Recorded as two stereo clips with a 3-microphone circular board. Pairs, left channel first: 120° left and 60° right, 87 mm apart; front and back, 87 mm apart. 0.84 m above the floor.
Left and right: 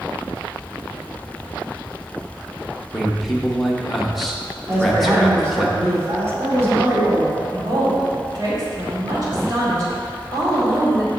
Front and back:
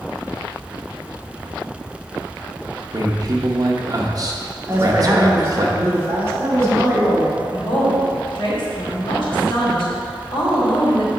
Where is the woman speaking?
25° right, 2 m.